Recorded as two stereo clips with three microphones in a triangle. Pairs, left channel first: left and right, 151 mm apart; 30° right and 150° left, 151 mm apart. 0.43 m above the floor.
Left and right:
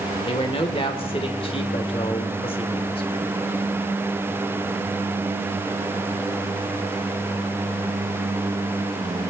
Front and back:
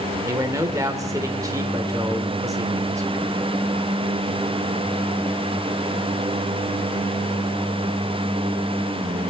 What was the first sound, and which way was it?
A man speaking, 100° left.